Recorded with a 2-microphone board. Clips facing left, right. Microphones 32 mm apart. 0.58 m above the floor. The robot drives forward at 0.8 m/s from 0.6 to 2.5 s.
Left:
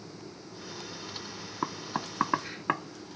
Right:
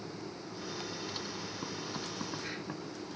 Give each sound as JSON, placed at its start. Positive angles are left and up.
{"t": 1.6, "sound": "knocking", "side_deg": 65}